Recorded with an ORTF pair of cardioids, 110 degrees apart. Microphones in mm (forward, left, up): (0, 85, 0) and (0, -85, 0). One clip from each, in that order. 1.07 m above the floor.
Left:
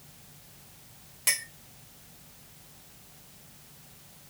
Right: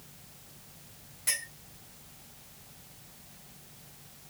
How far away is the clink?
About 1.4 m.